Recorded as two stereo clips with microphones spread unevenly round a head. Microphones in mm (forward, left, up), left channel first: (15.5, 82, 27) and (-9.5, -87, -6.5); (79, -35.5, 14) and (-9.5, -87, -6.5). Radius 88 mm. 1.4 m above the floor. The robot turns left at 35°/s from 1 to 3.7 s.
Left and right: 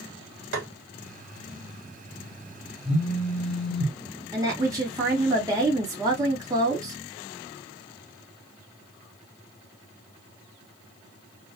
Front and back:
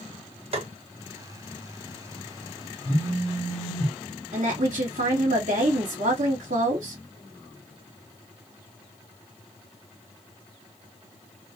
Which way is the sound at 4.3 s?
175° right.